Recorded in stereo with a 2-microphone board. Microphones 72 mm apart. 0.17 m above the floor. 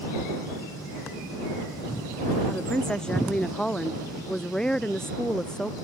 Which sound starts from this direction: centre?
A woman speaking, at 2.5 s.